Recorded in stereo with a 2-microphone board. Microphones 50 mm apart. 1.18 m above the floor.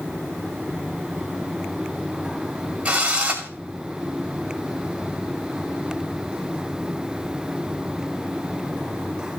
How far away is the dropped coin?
I don't hear a dropped coin.